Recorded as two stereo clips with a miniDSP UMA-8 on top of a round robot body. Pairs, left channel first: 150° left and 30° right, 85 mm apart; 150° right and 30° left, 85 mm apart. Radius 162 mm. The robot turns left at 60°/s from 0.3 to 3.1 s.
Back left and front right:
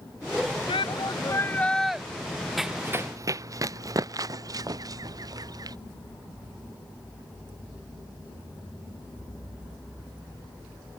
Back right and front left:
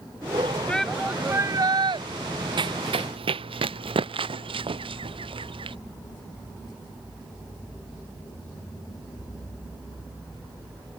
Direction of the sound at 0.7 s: 130° left.